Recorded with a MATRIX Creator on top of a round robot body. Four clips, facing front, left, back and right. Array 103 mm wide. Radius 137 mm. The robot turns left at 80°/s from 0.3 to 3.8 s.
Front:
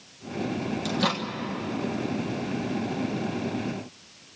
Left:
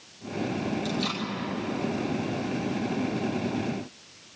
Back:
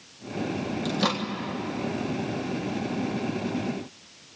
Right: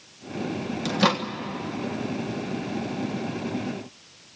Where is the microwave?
80° right, 1.4 m; by 1.2 s 110° right, 1.4 m.